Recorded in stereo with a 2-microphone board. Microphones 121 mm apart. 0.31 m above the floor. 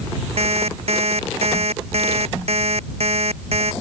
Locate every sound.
0.4 s an alarm clock: 55° right (ahead or behind)